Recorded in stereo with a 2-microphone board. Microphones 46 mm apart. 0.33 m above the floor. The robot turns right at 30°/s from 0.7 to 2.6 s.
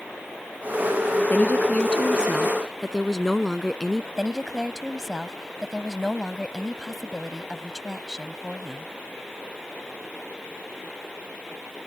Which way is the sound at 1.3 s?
135° left.